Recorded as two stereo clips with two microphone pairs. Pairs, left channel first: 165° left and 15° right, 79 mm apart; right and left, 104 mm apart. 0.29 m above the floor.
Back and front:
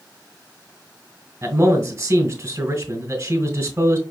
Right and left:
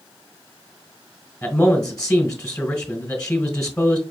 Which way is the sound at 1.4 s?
25° right.